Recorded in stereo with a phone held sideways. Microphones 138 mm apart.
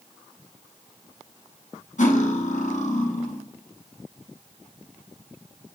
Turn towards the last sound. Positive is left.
turn(degrees=60)  # may be behind; listen again after turning